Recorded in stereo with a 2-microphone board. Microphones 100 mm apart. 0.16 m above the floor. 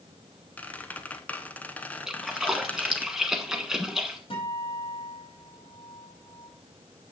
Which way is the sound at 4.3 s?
65° left (ahead or behind).